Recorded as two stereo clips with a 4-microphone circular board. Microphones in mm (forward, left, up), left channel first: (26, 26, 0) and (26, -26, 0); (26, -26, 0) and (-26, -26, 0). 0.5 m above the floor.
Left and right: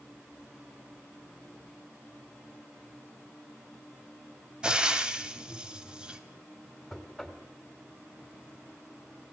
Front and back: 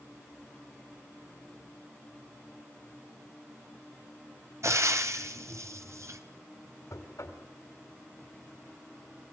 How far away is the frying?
About 2.5 m.